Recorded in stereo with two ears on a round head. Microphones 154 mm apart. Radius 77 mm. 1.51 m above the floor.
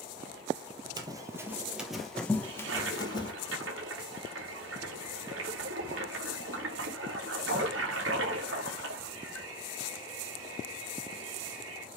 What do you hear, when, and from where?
1.0 s running footsteps: 25° right (ahead or behind), 1.6 m; by 3.3 s 30° left (ahead or behind), 1.8 m
2.4 s a toilet flushing: 85° right, 3.5 m